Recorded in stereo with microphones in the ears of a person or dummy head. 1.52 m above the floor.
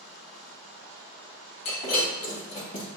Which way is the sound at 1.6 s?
45° left (ahead or behind).